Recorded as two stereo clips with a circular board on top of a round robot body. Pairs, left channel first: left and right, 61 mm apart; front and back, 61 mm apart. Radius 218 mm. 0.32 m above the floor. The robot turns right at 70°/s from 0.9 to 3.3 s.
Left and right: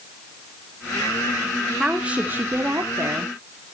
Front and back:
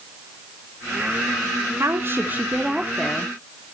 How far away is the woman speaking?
About 1.8 m.